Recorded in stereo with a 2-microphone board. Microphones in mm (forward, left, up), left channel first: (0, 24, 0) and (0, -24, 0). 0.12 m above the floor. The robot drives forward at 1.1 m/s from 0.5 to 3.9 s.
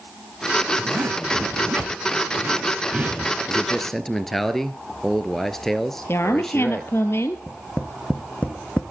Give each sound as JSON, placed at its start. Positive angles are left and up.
{"t": 0.8, "sound": "a zipper", "side_deg": -65, "distance_m": 1.9}
{"t": 3.5, "sound": "a man speaking", "side_deg": 10, "distance_m": 1.4}
{"t": 6.1, "sound": "a woman speaking", "side_deg": 55, "distance_m": 2.0}
{"t": 7.5, "sound": "tapping", "side_deg": 30, "distance_m": 2.0}